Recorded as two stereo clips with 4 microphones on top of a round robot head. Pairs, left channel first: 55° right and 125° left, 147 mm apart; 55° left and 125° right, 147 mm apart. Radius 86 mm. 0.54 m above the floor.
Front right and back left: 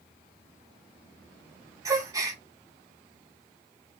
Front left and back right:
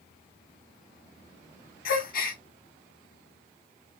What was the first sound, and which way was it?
A gasp, 60° left.